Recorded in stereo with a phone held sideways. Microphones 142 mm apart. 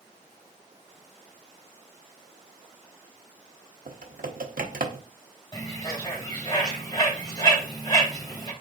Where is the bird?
30° left (ahead or behind), 2.5 m.